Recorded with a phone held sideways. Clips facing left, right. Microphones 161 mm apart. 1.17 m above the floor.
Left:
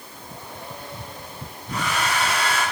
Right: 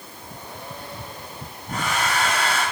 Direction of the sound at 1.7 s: 45° right (ahead or behind).